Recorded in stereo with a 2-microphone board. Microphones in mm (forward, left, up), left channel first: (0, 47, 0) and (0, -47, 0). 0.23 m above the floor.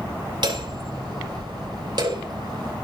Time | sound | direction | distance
0.4 | hammering | 55° right (ahead or behind) | 7 m